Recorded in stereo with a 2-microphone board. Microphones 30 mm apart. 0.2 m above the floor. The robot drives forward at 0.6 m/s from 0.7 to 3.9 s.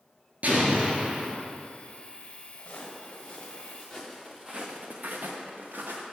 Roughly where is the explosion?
Right.